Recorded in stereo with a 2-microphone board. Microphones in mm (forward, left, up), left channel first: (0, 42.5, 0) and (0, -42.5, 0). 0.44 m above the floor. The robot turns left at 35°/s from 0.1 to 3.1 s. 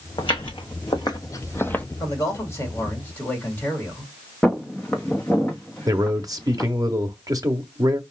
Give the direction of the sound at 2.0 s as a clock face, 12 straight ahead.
10 o'clock.